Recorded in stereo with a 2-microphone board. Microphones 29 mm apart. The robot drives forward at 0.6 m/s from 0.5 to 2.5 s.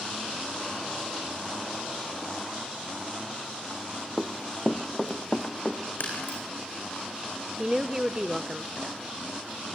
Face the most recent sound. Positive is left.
turn(degrees=-15)  # may be behind; listen again after turning